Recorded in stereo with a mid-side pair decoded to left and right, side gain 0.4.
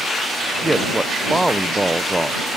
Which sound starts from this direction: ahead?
A man speaking, at 0.6 s.